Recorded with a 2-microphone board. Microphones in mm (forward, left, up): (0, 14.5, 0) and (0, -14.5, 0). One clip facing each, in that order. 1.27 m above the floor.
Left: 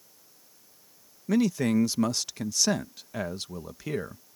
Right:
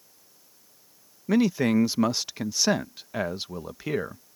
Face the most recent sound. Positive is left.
turn(degrees=-15)  # may be behind; listen again after turning